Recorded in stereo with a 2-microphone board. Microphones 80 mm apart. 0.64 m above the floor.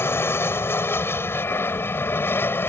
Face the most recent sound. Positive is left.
turn(degrees=30)  # may be behind; listen again after turning